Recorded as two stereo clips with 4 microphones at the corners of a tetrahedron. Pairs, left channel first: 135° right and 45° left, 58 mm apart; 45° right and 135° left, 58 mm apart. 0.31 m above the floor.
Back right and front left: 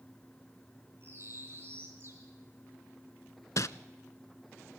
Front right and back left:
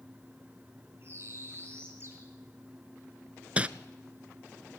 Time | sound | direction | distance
1.0 | a bird | 90° left | 5 m
3.6 | crumpling | 155° right | 0.5 m